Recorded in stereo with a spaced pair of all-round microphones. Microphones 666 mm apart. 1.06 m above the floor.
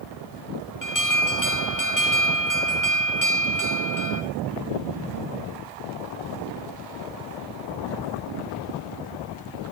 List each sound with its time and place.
0.8 s an alarm: 25° left (ahead or behind), 2.0 m